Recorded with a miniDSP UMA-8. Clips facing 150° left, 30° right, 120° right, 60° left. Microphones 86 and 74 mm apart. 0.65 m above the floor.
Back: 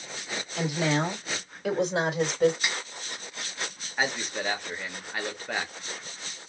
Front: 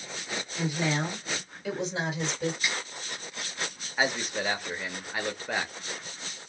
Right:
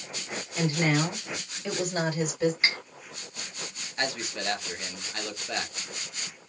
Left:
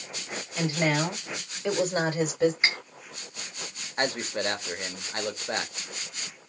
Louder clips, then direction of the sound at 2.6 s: Even, left 1 dB; 130° left.